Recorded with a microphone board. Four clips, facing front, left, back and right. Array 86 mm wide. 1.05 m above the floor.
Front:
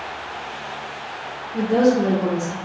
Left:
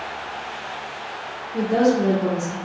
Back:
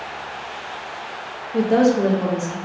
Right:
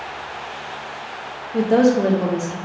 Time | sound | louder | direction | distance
1.5 | a woman speaking | right 3 dB, back 1 dB | 135° right | 0.6 m